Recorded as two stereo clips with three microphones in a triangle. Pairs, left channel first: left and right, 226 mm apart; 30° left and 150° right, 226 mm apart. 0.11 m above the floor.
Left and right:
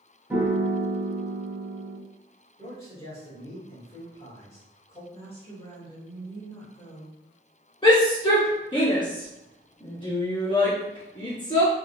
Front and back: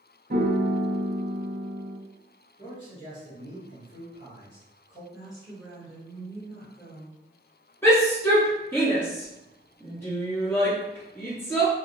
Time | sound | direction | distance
0.3 | a piano | 170° right | 0.8 m
2.6 | a man speaking | 50° left | 1.4 m
5.1 | a woman speaking | 125° left | 1.7 m
7.8 | a shout | 90° left | 1.5 m